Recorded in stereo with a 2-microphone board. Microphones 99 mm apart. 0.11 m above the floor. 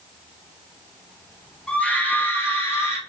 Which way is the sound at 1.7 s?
10° left (ahead or behind).